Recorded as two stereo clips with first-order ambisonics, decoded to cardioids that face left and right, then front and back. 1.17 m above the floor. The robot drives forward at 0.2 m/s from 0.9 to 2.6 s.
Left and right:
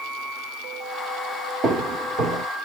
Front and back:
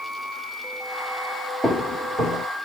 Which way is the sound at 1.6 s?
95° right.